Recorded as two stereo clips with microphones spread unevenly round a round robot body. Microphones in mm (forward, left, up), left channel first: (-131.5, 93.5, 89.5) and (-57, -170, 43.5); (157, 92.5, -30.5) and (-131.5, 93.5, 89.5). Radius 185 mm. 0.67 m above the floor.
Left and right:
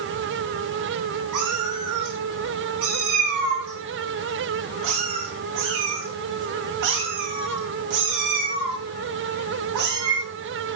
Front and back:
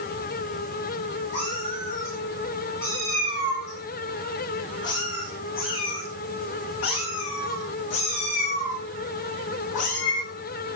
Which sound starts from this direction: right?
A cat meowing, at 1.3 s.